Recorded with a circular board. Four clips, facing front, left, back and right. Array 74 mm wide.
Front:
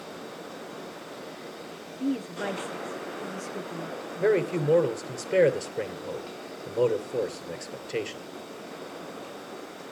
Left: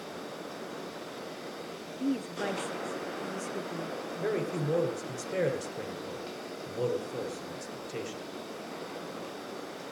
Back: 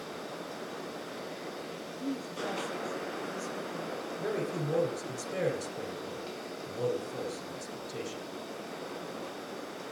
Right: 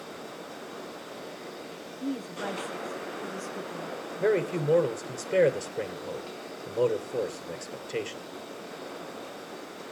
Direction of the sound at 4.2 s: 30° right.